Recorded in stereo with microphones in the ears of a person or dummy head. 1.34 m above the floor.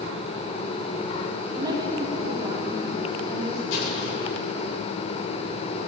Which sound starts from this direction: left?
An explosion, at 3.7 s.